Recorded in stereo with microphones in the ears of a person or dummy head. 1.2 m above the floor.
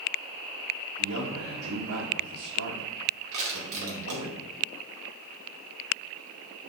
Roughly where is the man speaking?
Right.